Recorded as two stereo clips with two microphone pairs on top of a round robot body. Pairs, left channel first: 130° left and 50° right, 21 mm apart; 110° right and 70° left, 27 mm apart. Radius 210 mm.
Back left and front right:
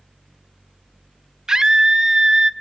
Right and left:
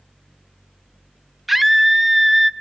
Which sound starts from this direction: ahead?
A scream, at 1.5 s.